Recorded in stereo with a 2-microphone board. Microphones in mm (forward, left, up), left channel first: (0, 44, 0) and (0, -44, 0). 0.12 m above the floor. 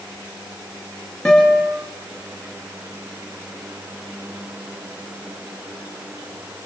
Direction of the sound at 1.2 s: 5° left (ahead or behind).